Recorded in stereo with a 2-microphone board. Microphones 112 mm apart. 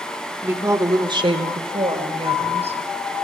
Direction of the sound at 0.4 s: 15° right (ahead or behind).